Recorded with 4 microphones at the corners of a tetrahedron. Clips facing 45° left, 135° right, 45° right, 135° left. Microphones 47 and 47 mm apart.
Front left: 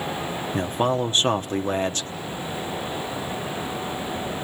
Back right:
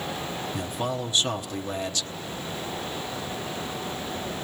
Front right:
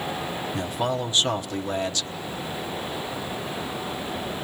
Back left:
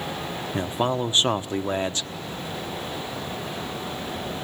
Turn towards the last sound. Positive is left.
turn(degrees=85)